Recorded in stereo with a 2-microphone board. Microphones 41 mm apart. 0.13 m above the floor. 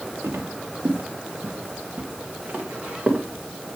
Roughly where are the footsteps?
Right.